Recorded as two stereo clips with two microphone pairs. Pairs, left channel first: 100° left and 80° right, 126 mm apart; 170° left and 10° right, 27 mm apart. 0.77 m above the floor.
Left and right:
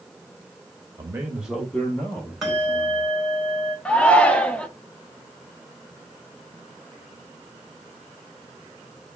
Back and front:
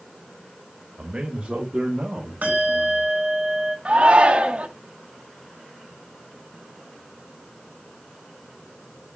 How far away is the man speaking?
About 0.9 m.